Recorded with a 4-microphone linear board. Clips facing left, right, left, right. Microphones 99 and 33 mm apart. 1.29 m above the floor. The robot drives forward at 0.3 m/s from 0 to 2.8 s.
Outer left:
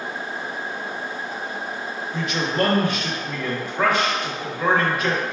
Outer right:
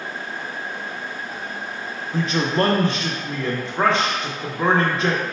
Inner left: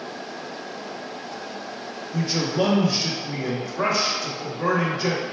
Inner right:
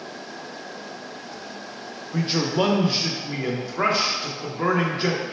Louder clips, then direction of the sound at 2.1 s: Outer right 3 dB, inner right 1 dB; 35° right (ahead or behind).